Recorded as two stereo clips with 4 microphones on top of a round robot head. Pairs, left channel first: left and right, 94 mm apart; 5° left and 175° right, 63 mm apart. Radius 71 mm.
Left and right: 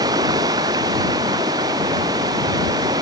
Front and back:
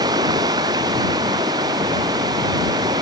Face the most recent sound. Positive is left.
turn(degrees=-145)